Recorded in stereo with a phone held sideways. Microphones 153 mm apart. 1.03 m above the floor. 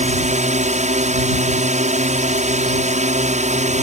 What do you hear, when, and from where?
0.0 s a drone: 50° right (ahead or behind)